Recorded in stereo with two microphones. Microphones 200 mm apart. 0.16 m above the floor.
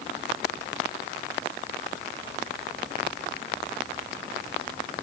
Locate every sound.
Only background noise.